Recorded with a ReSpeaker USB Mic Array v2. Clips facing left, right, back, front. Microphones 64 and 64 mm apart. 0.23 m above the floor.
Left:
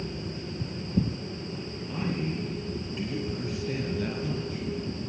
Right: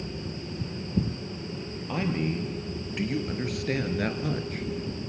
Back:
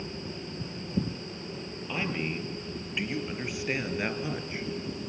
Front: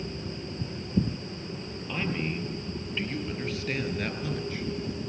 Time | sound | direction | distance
1.9 | a man speaking | 95° right | 5 m